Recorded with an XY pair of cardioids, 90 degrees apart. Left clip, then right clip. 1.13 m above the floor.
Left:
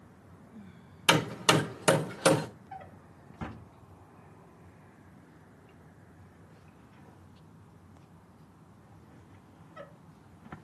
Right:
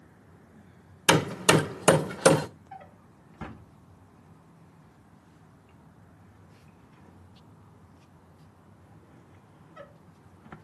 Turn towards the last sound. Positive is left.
turn(degrees=0)